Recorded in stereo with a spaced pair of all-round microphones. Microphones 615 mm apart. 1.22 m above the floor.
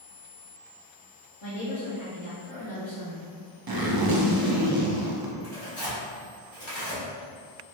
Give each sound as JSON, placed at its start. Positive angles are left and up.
{"t": 1.4, "sound": "a woman speaking", "side_deg": 70, "distance_m": 1.1}
{"t": 3.7, "sound": "a zipper", "side_deg": -40, "distance_m": 0.5}
{"t": 5.4, "sound": "tearing paper", "side_deg": 20, "distance_m": 1.8}